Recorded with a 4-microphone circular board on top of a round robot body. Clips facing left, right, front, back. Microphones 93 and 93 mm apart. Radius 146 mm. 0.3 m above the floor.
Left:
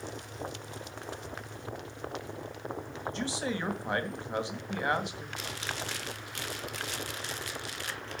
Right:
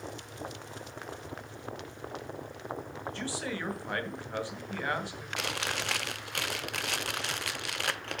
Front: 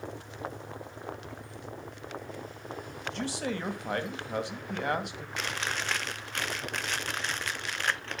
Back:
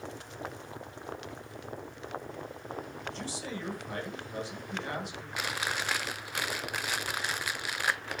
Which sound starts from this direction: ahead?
A man speaking, at 3.1 s.